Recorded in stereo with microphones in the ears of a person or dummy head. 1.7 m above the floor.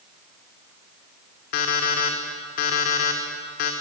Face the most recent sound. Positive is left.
turn(degrees=45)  # may be behind; listen again after turning